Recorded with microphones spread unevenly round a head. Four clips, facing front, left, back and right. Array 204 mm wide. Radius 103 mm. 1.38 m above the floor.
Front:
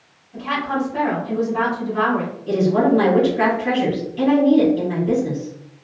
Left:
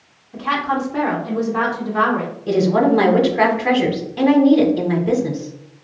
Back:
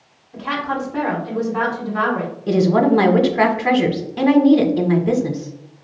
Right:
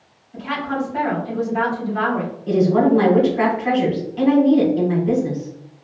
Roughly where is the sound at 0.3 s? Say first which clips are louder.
Left 4 dB, front 1 dB; left.